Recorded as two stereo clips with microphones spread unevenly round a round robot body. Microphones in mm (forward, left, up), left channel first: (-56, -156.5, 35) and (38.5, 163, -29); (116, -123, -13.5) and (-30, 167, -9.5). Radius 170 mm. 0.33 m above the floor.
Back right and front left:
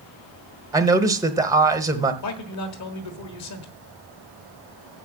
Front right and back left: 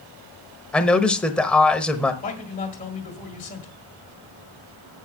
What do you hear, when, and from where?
0.7 s a man speaking: 20° left, 0.9 m
2.2 s a man speaking: 115° right, 1.6 m